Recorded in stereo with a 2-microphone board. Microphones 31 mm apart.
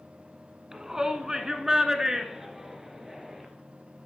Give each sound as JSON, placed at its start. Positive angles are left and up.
{"t": 0.7, "sound": "a shout", "side_deg": -20, "distance_m": 1.1}